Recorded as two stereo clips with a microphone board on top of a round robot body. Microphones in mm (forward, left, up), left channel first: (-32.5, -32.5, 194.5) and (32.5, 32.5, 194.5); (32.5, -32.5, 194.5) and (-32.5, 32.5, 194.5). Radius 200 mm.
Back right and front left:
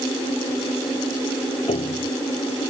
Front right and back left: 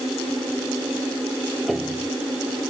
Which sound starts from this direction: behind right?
A piano, at 1.7 s.